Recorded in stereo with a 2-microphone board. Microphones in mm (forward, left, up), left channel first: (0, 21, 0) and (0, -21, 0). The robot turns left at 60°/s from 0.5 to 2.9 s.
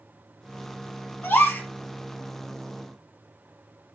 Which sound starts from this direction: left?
A gasp, at 1.2 s.